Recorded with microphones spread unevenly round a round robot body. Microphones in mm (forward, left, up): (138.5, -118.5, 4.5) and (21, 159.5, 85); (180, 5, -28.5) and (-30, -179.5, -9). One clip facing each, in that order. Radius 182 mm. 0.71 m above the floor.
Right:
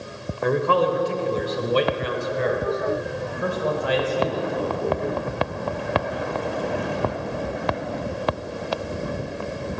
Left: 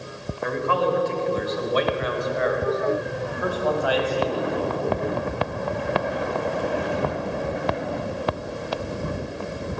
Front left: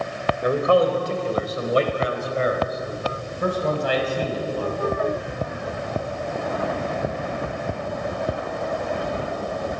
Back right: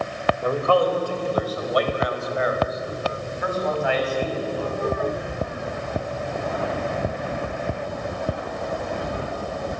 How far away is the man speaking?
About 3 m.